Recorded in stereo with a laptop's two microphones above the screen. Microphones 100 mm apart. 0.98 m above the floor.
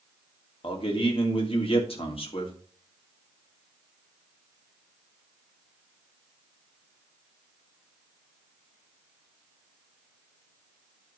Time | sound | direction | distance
0.6 | a man speaking | 70° left (ahead or behind) | 2.5 m